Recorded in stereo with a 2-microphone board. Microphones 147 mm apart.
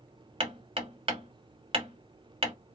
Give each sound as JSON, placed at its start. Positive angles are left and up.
{"t": 0.4, "sound": "hammering", "side_deg": -35, "distance_m": 1.5}